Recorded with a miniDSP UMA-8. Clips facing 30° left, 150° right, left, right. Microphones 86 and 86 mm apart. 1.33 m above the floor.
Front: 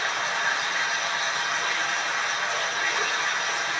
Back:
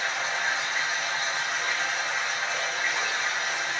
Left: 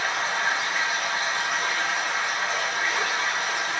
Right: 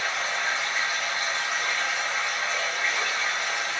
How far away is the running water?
About 1.1 m.